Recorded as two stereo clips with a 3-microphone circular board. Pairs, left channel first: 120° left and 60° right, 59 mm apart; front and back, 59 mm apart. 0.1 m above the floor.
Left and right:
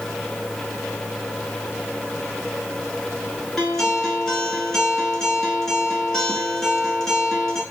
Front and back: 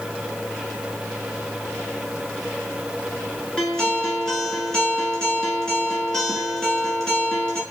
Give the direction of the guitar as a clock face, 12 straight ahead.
10 o'clock.